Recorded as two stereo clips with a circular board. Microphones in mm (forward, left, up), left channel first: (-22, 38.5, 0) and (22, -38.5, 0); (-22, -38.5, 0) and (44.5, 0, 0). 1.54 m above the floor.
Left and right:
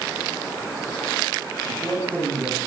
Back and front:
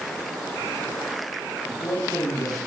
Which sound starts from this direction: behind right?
A man speaking, at 1.6 s.